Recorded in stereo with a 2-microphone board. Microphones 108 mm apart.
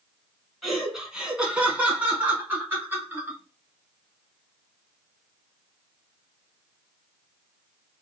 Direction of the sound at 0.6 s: Centre (ahead or behind).